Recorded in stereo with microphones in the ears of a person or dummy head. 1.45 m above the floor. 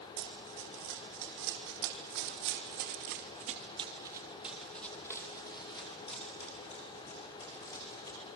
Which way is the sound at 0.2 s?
70° right (ahead or behind).